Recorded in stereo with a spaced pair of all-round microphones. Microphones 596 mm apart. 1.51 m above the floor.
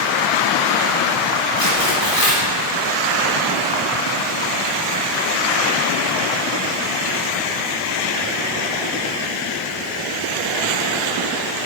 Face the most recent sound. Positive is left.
turn(degrees=-35)  # may be behind; listen again after turning